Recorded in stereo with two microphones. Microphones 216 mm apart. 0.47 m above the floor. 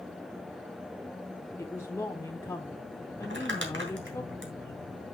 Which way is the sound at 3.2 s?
60° right (ahead or behind).